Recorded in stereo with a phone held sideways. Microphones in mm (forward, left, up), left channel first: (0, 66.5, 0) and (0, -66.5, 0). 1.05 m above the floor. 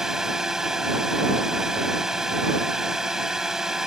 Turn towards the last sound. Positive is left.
turn(degrees=-5)  # may be behind; listen again after turning